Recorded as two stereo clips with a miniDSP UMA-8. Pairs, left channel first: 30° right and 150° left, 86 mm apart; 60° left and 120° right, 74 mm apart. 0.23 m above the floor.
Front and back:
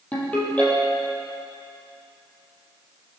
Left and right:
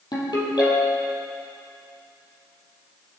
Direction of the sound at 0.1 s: 45° left.